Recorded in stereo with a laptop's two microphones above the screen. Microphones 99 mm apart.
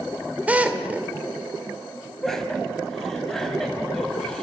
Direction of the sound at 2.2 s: 5° left (ahead or behind).